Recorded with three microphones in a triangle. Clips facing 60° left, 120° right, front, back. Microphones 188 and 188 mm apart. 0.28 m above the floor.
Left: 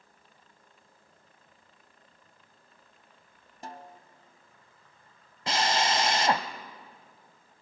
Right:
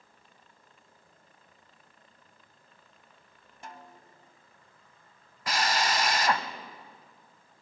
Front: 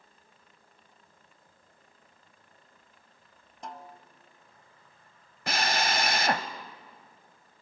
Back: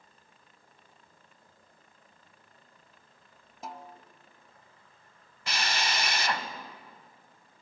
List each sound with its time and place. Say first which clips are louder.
3.6 s a snare drum: left 4 dB, even; 95° left, 1.1 m
5.5 s a drill: left 2 dB, front 4 dB; 5° left, 1.1 m